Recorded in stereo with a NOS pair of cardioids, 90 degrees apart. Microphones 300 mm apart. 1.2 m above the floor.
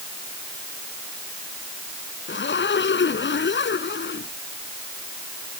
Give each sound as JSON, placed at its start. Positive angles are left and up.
{"t": 2.3, "sound": "a zipper", "azimuth_deg": 40}